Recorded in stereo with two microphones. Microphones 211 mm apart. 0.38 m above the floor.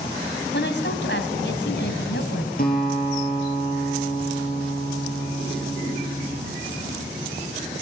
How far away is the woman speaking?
About 2.5 m.